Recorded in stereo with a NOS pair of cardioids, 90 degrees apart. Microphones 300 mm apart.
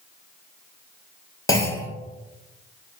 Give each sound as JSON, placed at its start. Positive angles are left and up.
{"t": 1.5, "sound": "a clunk", "azimuth_deg": 10, "distance_m": 0.8}